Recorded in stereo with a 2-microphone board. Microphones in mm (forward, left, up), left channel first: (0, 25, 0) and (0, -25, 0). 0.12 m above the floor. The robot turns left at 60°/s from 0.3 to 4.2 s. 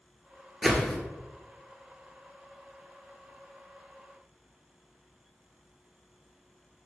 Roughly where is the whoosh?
Centre.